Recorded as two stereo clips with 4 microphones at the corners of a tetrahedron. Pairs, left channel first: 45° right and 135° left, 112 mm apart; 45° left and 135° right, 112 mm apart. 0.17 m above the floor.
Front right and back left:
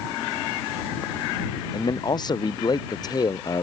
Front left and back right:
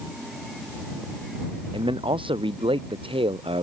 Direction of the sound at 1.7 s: 95° right.